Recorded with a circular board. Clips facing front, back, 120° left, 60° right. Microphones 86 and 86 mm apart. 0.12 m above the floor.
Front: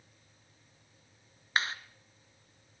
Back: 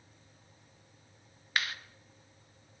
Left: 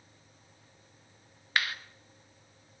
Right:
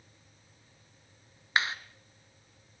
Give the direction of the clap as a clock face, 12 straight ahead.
1 o'clock.